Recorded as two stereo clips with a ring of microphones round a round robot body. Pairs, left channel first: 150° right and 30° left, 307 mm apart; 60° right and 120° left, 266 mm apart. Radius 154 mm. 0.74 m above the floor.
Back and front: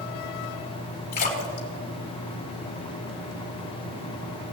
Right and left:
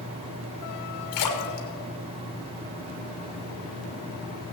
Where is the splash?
85° right, 2.0 m.